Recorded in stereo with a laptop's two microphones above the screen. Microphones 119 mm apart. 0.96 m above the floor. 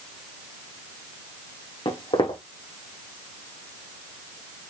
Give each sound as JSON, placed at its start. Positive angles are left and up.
{"t": 1.9, "sound": "footsteps", "side_deg": 45, "distance_m": 3.5}